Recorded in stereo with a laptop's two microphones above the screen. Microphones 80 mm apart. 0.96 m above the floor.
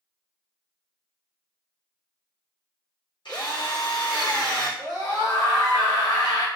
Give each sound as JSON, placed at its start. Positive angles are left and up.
{"t": 3.2, "sound": "a drill", "side_deg": 75, "distance_m": 1.8}
{"t": 4.8, "sound": "a scream", "side_deg": 75, "distance_m": 1.4}